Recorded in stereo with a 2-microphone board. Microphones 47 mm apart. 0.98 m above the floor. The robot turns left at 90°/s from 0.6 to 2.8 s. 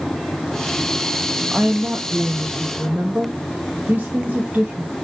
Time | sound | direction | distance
1.5 | a woman speaking | 20° right | 1.3 m